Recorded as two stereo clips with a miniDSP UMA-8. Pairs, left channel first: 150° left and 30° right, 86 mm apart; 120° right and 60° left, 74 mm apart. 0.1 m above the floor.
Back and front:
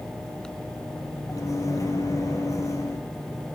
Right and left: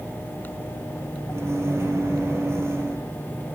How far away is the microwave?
About 2 m.